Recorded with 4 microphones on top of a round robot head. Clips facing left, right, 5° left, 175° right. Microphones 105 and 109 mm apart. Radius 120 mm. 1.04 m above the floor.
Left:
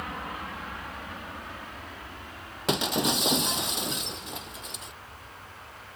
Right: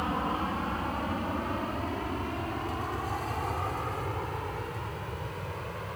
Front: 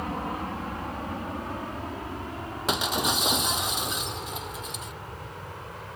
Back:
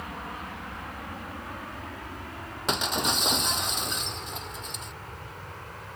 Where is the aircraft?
40° right; by 6.0 s 70° right.